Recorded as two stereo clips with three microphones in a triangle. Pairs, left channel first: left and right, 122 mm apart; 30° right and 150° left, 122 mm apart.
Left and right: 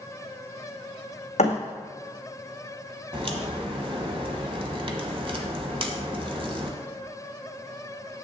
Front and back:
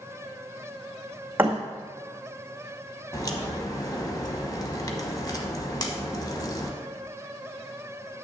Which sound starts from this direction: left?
A thud, at 1.4 s.